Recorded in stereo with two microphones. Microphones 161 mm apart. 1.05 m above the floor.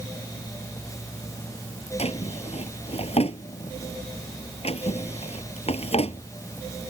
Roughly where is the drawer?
Left.